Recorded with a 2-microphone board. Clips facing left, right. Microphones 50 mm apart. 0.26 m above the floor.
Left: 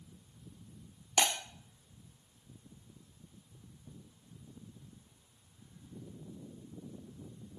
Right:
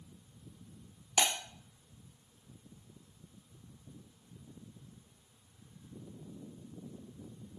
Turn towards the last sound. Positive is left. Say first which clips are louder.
# left 1 dB
turn(degrees=5)  # may be behind; listen again after turning